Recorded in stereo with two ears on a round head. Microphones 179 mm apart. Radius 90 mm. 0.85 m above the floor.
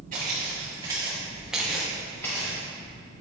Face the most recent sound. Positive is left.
turn(degrees=20)  # may be behind; listen again after turning